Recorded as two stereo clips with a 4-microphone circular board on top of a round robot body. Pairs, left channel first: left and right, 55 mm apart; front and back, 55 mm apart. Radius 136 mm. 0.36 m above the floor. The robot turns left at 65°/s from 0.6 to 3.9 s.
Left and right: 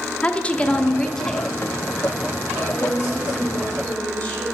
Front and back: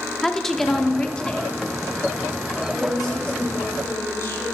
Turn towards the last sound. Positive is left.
turn(degrees=35)